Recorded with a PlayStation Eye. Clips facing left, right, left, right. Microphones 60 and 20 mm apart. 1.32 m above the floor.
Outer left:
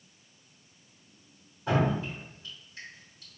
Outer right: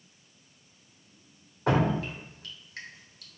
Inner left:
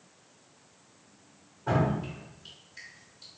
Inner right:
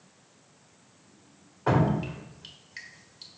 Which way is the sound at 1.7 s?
80° right.